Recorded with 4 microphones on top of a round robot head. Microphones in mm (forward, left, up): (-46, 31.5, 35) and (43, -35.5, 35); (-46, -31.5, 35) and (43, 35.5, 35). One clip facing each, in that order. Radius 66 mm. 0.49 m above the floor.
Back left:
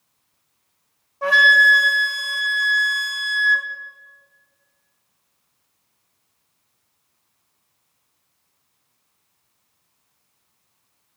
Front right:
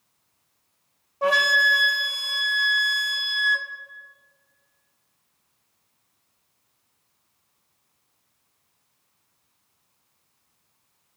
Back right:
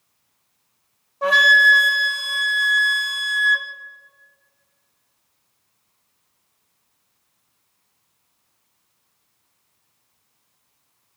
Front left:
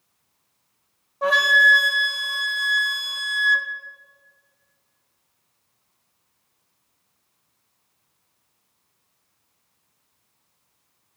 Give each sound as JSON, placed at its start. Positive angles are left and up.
{"t": 1.2, "sound": "a flute", "azimuth_deg": -50, "distance_m": 1.1}